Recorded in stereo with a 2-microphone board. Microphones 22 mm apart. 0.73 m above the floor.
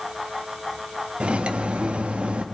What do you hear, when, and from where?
1.2 s cutlery clinking: 60° right (ahead or behind), 0.5 m